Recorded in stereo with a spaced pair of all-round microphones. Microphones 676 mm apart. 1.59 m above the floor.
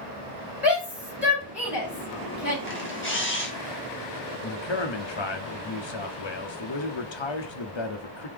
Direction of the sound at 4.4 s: 45° left (ahead or behind).